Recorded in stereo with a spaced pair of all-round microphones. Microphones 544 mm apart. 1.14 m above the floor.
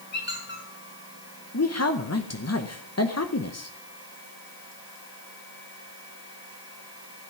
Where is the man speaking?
30° left (ahead or behind), 0.7 m.